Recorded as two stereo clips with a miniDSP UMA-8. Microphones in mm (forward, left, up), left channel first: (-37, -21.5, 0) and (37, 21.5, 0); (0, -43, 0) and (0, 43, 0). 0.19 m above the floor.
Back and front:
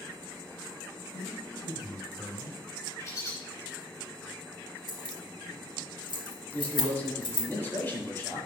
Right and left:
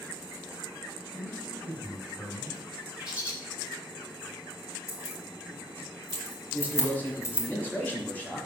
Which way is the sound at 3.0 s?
160° left.